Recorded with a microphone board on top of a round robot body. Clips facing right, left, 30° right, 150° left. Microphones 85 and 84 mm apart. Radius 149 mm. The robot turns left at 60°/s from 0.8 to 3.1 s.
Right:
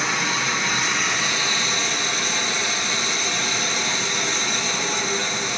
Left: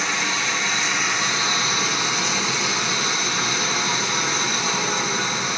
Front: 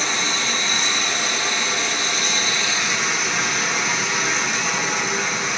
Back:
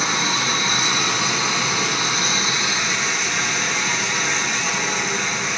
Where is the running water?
170° right, 1.1 m; by 5.6 s 55° left, 1.1 m.